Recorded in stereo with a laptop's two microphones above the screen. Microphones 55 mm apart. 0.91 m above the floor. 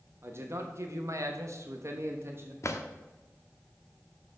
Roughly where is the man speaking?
Right.